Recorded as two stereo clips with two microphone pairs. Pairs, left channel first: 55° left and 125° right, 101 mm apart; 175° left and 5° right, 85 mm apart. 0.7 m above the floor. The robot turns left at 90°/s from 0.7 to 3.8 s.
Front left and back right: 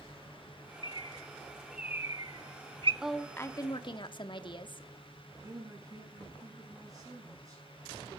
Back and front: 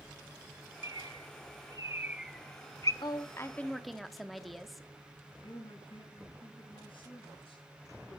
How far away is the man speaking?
About 5.5 m.